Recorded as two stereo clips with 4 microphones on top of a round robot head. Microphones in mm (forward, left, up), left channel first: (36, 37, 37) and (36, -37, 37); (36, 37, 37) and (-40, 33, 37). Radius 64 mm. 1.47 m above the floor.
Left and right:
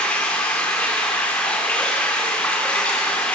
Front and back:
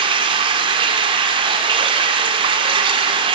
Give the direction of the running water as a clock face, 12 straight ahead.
6 o'clock.